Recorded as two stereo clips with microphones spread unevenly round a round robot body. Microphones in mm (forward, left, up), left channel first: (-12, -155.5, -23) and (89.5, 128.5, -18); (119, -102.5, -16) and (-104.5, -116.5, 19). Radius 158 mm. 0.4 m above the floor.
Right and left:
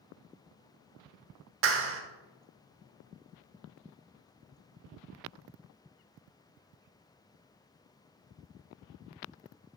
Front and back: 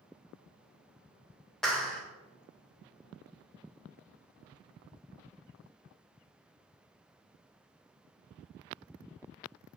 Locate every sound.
1.6 s a clap: 80° left, 1.2 m